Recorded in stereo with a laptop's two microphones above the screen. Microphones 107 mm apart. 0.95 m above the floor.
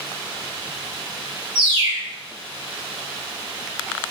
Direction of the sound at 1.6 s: 55° right (ahead or behind).